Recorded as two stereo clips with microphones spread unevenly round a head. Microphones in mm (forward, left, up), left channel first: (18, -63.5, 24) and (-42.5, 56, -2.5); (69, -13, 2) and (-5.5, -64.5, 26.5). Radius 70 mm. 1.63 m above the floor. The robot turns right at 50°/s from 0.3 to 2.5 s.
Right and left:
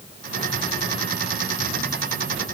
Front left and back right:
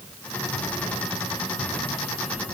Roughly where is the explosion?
No explosion in this recording.